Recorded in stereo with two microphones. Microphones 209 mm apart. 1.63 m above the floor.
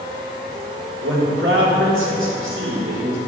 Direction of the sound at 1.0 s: 85° right.